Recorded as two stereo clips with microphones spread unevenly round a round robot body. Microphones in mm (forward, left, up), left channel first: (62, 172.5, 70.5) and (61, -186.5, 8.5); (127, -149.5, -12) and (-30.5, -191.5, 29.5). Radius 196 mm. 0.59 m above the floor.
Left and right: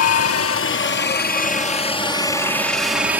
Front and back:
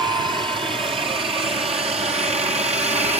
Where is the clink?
No clink in this recording.